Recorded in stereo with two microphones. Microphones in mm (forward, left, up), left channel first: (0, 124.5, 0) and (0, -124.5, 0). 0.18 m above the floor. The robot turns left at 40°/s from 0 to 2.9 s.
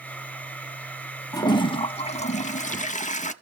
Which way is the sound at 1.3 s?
150° left.